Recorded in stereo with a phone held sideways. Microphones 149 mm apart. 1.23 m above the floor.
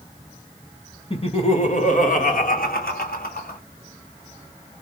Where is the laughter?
40° left (ahead or behind), 1.3 m; by 3.6 s 90° left, 1.7 m.